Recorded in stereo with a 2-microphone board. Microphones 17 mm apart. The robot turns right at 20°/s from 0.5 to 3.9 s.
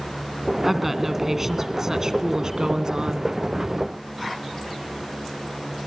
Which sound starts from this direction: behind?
A woman speaking, at 0.7 s.